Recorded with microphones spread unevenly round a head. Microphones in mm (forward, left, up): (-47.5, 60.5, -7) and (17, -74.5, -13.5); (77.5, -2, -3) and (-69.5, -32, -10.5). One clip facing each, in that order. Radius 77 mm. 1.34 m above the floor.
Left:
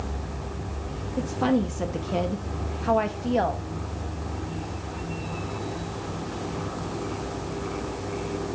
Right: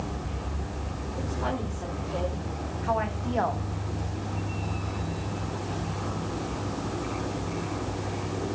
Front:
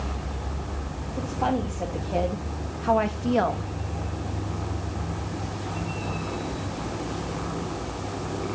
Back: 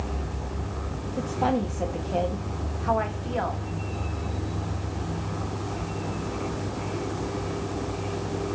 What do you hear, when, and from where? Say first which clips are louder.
1.2 s a woman speaking: left 9 dB, back 1 dB; 120° left, 1.2 m; by 3.6 s 50° left, 1.1 m